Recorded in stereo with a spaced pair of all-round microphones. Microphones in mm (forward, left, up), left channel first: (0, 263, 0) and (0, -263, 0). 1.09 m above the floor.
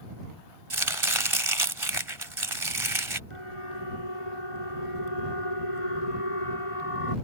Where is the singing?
I don't hear singing.